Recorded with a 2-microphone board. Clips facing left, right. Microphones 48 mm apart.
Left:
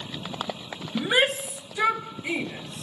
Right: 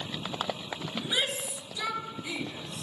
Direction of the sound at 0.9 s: 45° left (ahead or behind).